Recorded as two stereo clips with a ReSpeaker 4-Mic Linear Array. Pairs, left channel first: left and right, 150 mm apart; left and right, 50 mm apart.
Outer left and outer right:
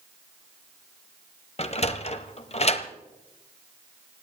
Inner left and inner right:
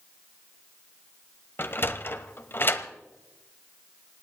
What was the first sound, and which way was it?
A sliding door, 45° left (ahead or behind).